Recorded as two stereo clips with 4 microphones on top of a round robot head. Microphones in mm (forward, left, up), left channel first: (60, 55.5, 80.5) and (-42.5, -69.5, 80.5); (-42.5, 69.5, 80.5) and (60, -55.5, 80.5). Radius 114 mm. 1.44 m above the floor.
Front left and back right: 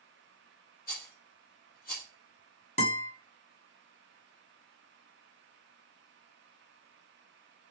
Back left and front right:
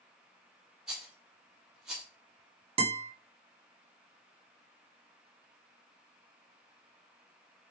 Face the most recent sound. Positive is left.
turn(degrees=5)